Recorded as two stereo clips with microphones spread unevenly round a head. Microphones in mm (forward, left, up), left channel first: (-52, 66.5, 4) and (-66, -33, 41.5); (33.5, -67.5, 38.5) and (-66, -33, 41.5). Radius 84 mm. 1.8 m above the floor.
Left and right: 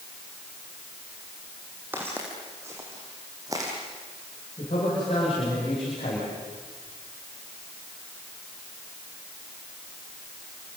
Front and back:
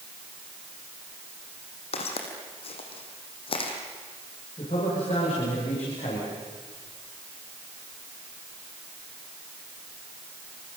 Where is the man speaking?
30° left, 7.5 m.